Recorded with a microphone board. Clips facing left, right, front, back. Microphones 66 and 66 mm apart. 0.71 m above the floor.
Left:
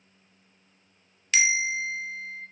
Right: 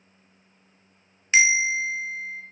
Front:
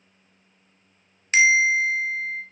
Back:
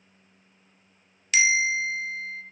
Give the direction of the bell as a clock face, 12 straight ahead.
1 o'clock.